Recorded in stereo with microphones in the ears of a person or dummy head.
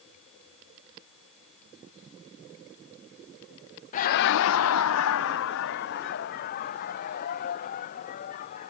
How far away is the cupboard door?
No cupboard door in this recording.